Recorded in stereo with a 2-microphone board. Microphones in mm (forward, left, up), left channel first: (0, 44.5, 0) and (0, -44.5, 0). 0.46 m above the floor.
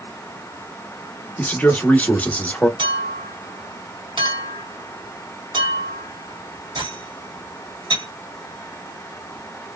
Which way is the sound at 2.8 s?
65° right (ahead or behind).